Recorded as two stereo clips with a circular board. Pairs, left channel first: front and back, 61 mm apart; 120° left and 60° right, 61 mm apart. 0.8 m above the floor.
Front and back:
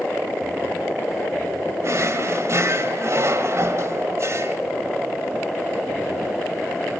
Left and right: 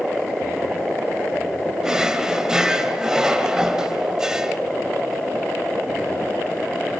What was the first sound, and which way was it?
A drawer, 140° right.